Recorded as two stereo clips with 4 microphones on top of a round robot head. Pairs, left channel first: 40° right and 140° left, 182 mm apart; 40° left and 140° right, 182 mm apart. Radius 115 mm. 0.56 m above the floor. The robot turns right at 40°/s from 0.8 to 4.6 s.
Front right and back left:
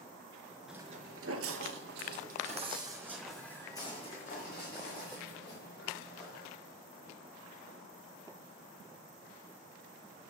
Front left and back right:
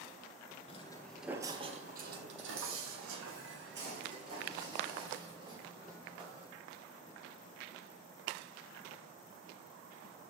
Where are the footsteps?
55° left, 0.5 m; by 6.5 s 75° right, 6 m.